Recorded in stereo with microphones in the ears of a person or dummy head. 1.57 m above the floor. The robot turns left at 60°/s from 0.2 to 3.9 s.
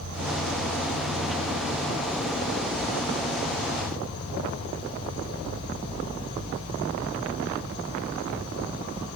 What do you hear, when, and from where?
0.0 s an insect: 70° right, 8 m; by 9.2 s 70° left, 8 m